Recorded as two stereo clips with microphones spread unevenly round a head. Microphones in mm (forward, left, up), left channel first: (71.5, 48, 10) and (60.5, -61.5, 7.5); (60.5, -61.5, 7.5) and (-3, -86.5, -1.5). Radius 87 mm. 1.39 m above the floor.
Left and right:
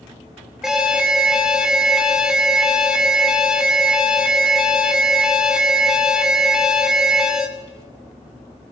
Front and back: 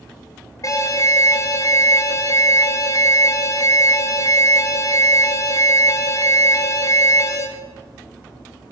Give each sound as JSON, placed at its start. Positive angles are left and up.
{"t": 0.6, "sound": "an alarm", "azimuth_deg": -10, "distance_m": 1.2}